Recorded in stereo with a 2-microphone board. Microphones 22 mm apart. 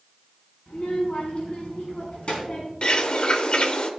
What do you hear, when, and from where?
0.7 s a child speaking: 65° left (ahead or behind), 4.5 m; by 2.7 s 50° left (ahead or behind), 4 m
2.8 s a bird: 45° left (ahead or behind), 0.9 m